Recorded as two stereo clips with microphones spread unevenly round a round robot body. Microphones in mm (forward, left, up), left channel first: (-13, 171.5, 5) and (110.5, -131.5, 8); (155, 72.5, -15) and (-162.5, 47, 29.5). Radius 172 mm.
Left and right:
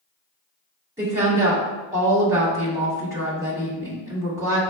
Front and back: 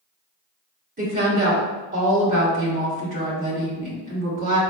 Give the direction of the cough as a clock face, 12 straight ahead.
I don't hear a cough.